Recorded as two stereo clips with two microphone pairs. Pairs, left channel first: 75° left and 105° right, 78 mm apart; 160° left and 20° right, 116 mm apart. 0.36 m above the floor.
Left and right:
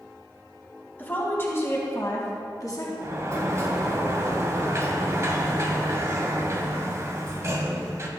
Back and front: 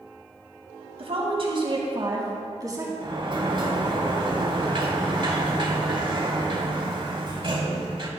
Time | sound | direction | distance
1.0 | a woman speaking | 10° left | 2 m
3.0 | a sliding door | 60° right | 1.3 m